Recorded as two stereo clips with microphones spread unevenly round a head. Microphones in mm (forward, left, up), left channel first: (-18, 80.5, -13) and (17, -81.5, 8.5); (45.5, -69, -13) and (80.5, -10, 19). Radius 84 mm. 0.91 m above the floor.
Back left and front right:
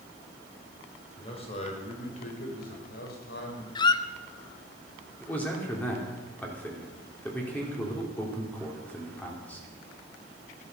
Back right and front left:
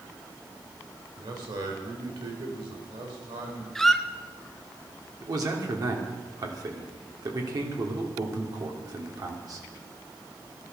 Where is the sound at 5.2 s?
25° left, 3 m.